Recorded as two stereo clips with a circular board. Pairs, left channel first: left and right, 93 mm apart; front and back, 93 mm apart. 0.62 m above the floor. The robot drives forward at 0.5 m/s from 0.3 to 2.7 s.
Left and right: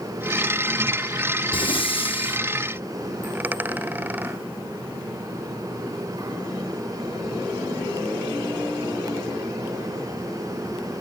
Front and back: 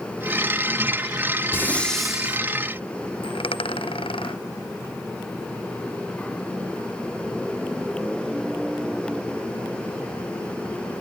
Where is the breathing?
65° left; by 2.4 s 110° left.